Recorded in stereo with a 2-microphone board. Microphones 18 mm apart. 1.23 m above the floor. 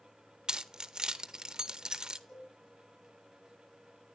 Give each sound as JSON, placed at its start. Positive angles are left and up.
{"t": 0.5, "sound": "keys jangling", "side_deg": -50, "distance_m": 0.5}
{"t": 2.3, "sound": "a cowbell", "side_deg": 75, "distance_m": 6.0}